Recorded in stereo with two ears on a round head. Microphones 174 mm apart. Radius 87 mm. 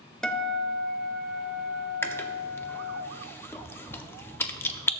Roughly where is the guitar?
Centre.